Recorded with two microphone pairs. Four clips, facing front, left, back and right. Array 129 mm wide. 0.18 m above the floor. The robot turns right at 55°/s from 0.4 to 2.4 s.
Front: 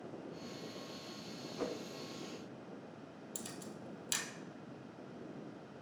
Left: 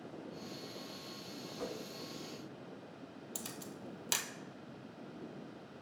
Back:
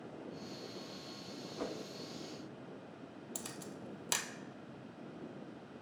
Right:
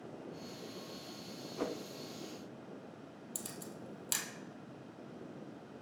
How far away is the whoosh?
About 0.6 m.